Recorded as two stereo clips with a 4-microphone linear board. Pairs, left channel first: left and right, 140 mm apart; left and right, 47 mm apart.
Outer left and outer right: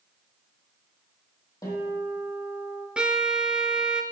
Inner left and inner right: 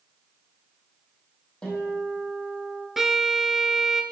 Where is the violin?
5° right (ahead or behind), 1.0 m.